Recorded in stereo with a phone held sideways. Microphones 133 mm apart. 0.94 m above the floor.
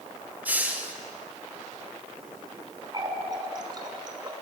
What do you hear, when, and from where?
0.5 s a hiss: 10° right (ahead or behind), 1.6 m
2.9 s a running tap: 30° right (ahead or behind), 2.5 m